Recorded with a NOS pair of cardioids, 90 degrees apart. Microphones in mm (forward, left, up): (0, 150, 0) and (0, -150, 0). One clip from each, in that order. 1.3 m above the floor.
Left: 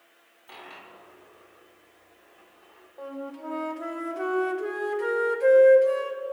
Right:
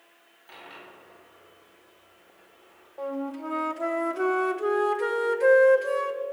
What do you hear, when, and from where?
0.5 s a dropped coin: 20° left, 4 m
3.0 s a flute: 20° right, 0.8 m